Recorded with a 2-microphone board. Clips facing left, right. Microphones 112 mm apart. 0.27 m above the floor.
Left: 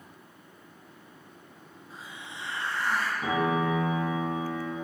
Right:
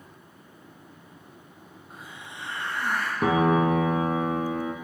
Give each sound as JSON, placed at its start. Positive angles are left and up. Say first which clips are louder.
{"t": 1.9, "sound": "a hiss", "louder": "even", "side_deg": -55, "distance_m": 3.5}
{"t": 3.2, "sound": "a piano", "louder": "right 7 dB", "side_deg": -70, "distance_m": 1.5}